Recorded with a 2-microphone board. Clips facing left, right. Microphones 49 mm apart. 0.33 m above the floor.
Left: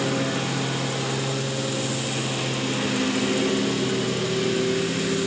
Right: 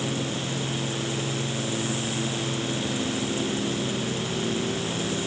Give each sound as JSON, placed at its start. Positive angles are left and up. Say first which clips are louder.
{"t": 0.0, "sound": "a lawn mower", "louder": "left 5 dB", "side_deg": 60}